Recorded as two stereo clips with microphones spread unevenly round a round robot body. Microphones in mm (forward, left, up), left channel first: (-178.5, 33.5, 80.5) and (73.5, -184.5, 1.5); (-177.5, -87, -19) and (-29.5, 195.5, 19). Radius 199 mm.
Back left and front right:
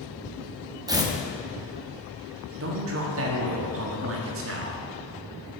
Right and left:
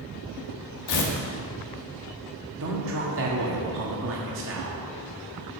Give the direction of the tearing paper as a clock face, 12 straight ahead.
4 o'clock.